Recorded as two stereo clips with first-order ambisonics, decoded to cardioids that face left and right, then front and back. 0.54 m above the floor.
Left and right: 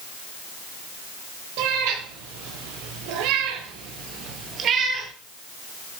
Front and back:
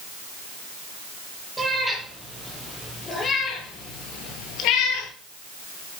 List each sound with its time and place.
1.6 s a cat meowing: 95° right, 5.5 m; by 5.1 s 25° right, 4 m